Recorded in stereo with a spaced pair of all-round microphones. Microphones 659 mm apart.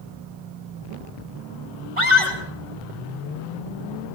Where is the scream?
50° right (ahead or behind), 7 m.